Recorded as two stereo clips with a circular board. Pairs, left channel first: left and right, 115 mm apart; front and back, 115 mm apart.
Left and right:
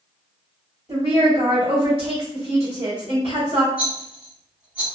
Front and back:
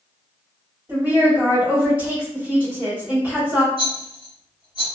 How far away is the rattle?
About 1.3 m.